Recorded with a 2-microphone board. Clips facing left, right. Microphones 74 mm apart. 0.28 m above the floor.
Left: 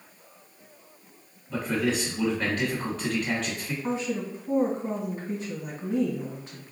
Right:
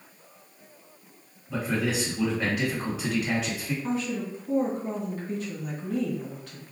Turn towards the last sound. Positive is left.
turn(degrees=20)  # may be behind; listen again after turning